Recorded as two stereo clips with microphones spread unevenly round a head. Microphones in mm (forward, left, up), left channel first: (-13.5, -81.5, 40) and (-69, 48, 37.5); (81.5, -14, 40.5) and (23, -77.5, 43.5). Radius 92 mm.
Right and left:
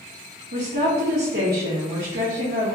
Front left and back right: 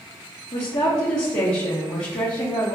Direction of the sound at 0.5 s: 100° left.